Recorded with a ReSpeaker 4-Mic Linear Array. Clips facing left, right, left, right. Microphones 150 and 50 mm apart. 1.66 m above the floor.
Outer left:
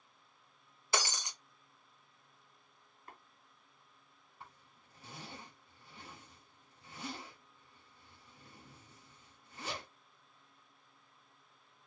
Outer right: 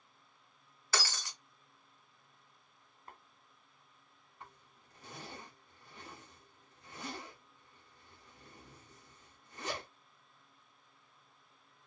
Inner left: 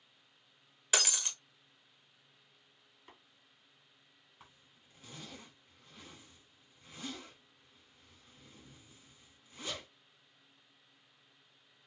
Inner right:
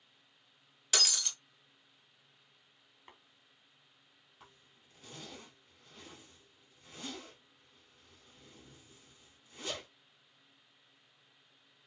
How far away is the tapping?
About 2 m.